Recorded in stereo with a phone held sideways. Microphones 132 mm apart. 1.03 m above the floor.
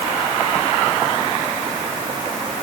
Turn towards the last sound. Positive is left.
No sound to turn to.